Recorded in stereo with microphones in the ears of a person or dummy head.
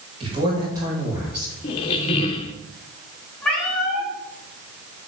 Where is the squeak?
20° left (ahead or behind), 0.5 m.